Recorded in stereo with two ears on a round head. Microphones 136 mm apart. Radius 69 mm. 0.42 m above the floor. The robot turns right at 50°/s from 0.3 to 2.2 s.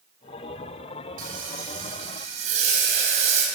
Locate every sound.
1.2 s frying: 105° right, 3 m; by 3.5 s 50° right, 3 m